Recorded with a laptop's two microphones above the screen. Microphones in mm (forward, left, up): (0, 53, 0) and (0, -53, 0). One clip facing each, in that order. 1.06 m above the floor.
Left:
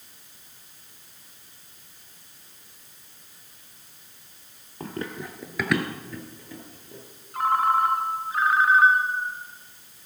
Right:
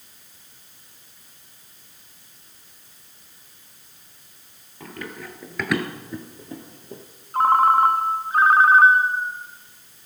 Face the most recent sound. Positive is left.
turn(degrees=-45)  # may be behind; listen again after turning